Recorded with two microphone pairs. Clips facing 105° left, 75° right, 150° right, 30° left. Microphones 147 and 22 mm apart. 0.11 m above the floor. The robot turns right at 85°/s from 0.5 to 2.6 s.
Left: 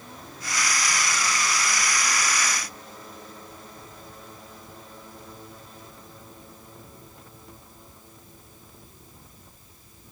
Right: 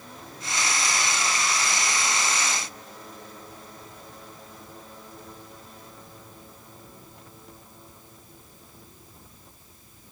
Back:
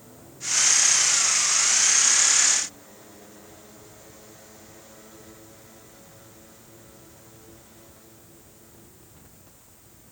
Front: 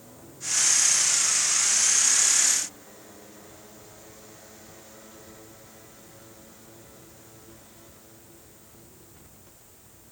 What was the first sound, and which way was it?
Only background noise.